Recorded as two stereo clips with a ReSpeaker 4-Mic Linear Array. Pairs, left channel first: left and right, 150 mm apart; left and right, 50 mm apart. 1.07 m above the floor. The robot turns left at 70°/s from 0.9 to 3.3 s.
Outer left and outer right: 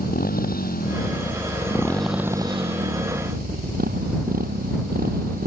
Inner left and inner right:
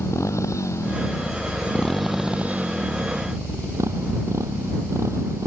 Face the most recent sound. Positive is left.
turn(degrees=-85)